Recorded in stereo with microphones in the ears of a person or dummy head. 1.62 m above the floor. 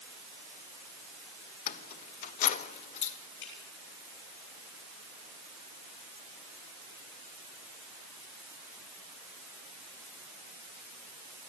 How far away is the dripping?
About 8 m.